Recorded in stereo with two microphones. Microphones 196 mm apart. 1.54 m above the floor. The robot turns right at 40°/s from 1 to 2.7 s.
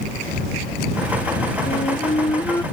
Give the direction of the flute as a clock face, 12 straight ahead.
8 o'clock.